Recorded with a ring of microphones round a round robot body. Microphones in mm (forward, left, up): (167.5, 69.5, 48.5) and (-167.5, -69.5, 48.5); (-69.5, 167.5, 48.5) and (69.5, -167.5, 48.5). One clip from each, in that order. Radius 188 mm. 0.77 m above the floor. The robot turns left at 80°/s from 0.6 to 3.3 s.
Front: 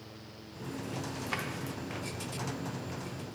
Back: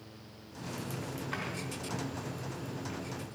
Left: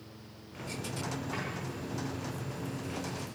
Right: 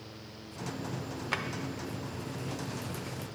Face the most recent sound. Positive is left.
turn(degrees=155)